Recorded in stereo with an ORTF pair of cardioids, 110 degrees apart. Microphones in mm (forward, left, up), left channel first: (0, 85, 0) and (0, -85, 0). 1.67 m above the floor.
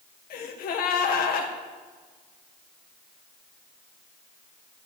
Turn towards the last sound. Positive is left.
turn(degrees=60)